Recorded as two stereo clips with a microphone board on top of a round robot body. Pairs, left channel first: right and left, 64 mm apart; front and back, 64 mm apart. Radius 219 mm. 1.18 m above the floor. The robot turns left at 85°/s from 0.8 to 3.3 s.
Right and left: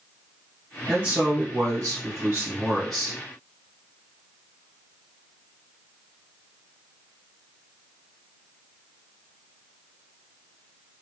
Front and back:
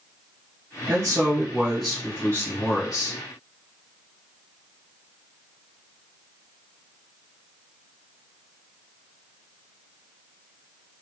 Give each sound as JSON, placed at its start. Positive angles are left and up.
{"t": 0.9, "sound": "a man speaking", "azimuth_deg": 170, "distance_m": 1.2}